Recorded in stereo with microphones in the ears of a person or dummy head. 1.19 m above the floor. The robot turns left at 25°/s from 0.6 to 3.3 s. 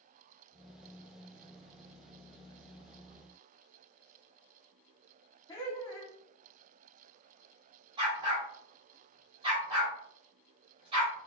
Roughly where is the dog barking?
Right.